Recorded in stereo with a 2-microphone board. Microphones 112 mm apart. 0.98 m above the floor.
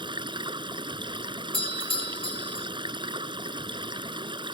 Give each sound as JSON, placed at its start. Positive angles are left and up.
{"t": 0.0, "sound": "running water", "side_deg": -45}
{"t": 1.5, "sound": "a doorbell", "side_deg": 55}